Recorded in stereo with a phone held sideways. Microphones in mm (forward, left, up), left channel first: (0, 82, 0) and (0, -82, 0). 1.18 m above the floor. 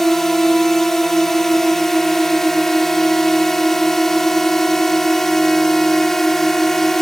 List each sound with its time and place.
0.0 s a drone: centre (ahead or behind)